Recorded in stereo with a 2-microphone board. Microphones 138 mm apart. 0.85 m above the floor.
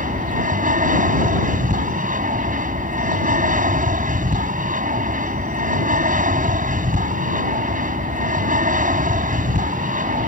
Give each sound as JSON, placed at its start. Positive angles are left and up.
{"t": 0.0, "sound": "an aircraft", "side_deg": -65}